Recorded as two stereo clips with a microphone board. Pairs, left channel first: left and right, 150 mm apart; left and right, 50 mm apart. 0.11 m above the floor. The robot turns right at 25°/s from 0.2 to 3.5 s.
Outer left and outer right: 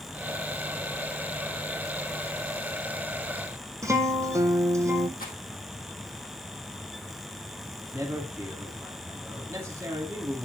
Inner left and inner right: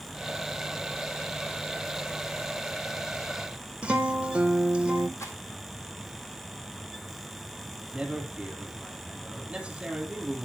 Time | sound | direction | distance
3.8 | a guitar | 20° right (ahead or behind) | 1.0 m
5.2 | a rattle | 75° left (ahead or behind) | 1.8 m
7.9 | a man speaking | 15° right (ahead or behind) | 3 m